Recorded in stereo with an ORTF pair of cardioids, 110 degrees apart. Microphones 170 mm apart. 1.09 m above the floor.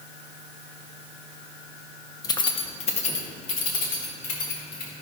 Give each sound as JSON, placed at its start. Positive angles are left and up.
{"t": 2.2, "sound": "keys jangling", "azimuth_deg": 20, "distance_m": 0.6}